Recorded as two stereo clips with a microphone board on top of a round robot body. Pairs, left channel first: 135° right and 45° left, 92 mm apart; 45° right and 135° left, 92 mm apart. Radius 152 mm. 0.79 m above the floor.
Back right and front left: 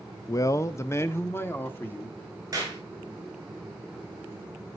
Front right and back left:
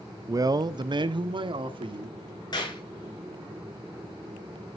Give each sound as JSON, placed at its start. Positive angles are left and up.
{"t": 0.3, "sound": "a man speaking", "azimuth_deg": -175, "distance_m": 0.6}
{"t": 2.5, "sound": "a clap", "azimuth_deg": -10, "distance_m": 5.5}